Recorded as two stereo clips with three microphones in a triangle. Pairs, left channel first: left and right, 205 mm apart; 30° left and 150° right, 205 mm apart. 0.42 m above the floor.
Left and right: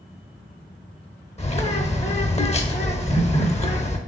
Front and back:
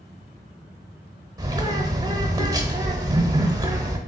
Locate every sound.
1.4 s a bird: 145° left, 0.6 m